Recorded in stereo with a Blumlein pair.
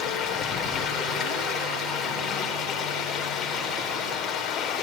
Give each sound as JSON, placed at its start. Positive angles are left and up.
{"t": 0.0, "sound": "running water", "azimuth_deg": 25, "distance_m": 3.5}